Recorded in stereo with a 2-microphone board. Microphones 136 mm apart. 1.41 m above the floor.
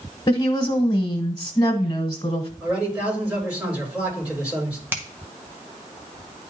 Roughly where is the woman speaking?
Left.